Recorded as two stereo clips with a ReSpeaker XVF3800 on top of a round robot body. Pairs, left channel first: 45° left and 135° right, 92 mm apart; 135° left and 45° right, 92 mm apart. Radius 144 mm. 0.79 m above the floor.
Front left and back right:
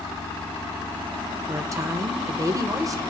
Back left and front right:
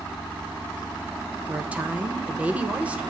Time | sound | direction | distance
1.5 | a woman speaking | 115° right | 1.1 m